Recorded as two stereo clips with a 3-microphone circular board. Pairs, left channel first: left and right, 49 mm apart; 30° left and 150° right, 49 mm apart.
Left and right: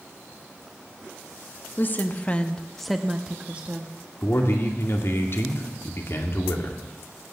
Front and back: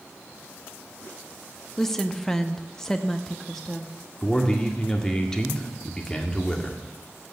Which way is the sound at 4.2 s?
105° left.